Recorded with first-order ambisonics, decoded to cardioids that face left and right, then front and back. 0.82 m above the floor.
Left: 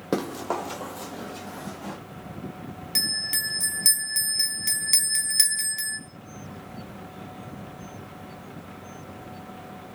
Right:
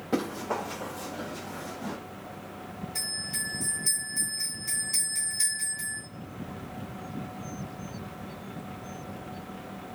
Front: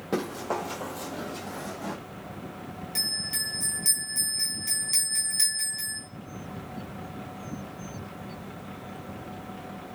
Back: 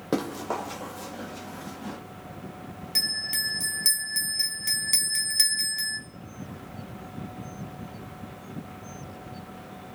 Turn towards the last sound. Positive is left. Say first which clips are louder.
# left 8 dB, back 3 dB
turn(degrees=110)